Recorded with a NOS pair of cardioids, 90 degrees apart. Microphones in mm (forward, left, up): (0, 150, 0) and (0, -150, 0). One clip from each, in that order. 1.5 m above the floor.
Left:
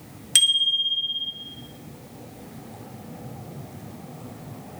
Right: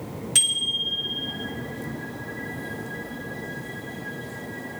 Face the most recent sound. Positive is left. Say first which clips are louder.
# left 4 dB
turn(degrees=65)